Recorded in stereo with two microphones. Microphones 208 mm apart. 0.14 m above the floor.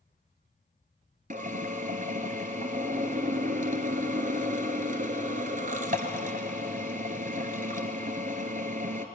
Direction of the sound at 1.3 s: 40° right (ahead or behind).